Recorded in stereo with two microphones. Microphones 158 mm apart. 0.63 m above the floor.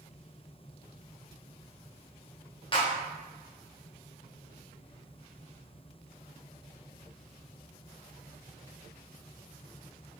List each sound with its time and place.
2.7 s a clap: 30° left (ahead or behind), 0.7 m